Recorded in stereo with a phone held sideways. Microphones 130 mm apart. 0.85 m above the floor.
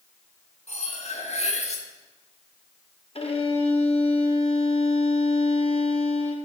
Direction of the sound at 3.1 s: 50° left (ahead or behind).